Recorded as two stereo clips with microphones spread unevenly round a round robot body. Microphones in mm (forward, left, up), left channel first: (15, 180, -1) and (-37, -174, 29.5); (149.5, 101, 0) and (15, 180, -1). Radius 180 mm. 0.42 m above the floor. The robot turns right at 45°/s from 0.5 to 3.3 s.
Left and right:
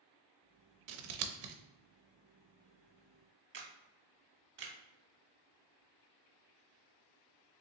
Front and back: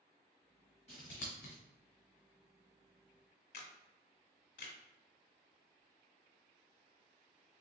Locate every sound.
0.9 s scissors: 95° right, 0.5 m; by 1.6 s 65° right, 0.5 m
3.5 s a camera shutter: 40° right, 0.6 m